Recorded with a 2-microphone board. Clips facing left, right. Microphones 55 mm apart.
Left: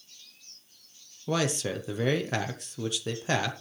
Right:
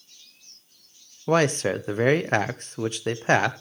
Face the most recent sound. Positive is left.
turn(degrees=-45)  # may be behind; listen again after turning